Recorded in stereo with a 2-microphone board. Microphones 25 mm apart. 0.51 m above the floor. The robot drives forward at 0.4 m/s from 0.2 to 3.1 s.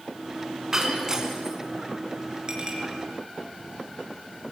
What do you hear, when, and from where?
0.7 s breaking glass: 20° right (ahead or behind), 3 m; by 1.6 s 25° right (ahead or behind), 3 m
2.5 s a clink: 35° right (ahead or behind), 5.5 m